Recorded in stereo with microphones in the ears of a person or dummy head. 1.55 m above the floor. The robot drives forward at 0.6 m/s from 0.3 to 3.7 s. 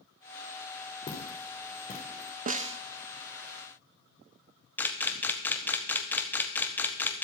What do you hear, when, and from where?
1.1 s footsteps: 30° left (ahead or behind), 3.5 m; by 2.3 s 40° left (ahead or behind), 4 m
2.5 s a snare drum: 40° right (ahead or behind), 0.5 m; by 2.8 s 30° right (ahead or behind), 0.7 m
4.8 s a camera shutter: 10° left (ahead or behind), 1.0 m